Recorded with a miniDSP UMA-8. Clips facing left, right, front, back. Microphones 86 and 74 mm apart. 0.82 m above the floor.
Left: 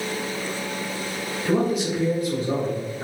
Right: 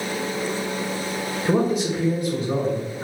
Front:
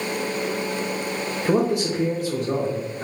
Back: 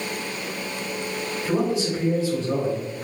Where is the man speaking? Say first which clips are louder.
Right 1 dB, front 3 dB; 30° right, 0.6 m; by 3.0 s 50° left, 1.4 m.